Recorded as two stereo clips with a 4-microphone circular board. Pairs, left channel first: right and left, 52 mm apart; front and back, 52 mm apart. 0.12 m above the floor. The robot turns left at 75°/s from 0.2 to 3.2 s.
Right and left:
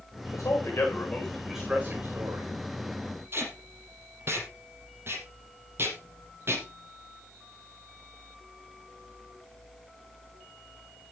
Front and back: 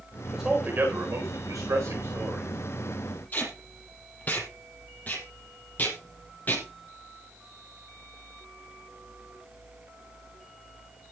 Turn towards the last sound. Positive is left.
turn(degrees=50)